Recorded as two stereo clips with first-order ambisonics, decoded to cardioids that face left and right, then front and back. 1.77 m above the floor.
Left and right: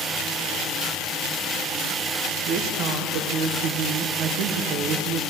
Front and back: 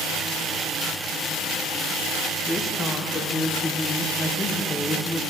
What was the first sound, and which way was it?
A woman speaking, 75° right.